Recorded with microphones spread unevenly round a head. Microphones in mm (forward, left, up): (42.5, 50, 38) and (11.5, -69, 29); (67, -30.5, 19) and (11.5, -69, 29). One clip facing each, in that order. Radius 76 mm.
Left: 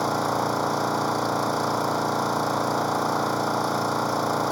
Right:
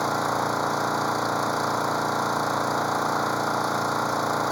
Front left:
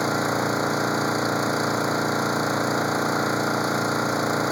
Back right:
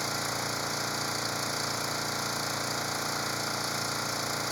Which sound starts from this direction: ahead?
An engine running, at 0.0 s.